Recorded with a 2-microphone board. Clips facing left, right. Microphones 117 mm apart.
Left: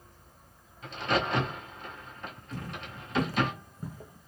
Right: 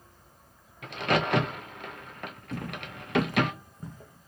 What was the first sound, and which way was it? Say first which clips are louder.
A crack: right 2 dB; 75° right (ahead or behind).